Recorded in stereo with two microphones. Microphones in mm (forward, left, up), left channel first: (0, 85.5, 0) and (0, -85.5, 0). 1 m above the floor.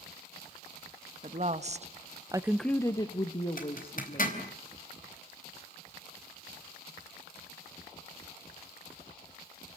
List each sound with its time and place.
1.2 s a woman speaking: 45° right (ahead or behind), 1.7 m; by 4.5 s 35° left (ahead or behind), 3 m
3.6 s a zipper: 55° left (ahead or behind), 4 m